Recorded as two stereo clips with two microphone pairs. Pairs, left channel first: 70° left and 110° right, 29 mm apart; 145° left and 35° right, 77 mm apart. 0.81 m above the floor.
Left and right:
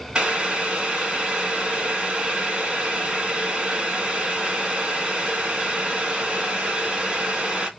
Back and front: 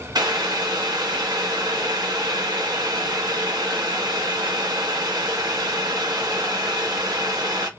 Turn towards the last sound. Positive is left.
turn(degrees=-55)